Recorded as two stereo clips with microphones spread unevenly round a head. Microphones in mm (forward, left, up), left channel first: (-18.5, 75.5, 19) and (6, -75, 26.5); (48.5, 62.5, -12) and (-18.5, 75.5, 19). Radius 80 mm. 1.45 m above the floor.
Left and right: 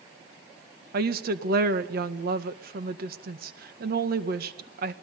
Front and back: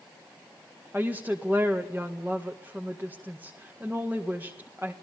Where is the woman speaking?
110° right, 1.9 m.